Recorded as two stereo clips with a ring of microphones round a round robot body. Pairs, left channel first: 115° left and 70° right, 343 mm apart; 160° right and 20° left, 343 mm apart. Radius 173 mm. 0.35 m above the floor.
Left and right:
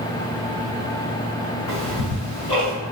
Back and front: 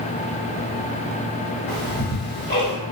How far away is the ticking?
About 1.4 m.